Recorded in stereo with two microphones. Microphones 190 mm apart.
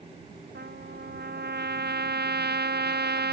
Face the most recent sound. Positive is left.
turn(degrees=-60)  # may be behind; listen again after turning